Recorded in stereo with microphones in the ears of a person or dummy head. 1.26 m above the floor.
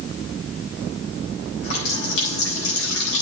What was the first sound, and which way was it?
A running tap, 80° left.